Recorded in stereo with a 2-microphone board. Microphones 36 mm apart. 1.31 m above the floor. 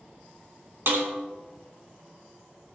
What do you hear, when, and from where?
0.9 s a snare drum: 75° right (ahead or behind), 3 m